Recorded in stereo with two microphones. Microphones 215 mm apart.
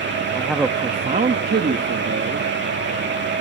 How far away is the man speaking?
About 0.6 m.